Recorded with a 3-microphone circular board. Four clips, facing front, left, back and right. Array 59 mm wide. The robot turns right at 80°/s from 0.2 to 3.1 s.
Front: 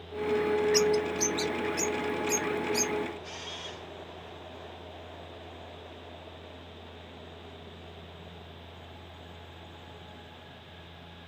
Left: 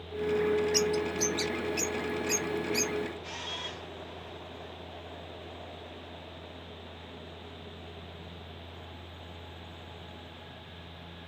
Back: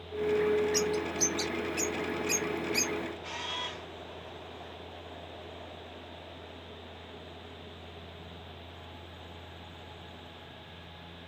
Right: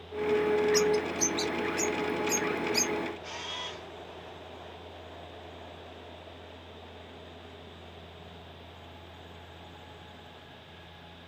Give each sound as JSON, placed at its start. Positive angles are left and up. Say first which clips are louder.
{"t": 0.7, "sound": "a bird", "louder": "right 3 dB, front 5 dB", "azimuth_deg": 40, "distance_m": 0.8}
{"t": 3.2, "sound": "a camera shutter", "louder": "even, back 4 dB", "azimuth_deg": -155, "distance_m": 1.6}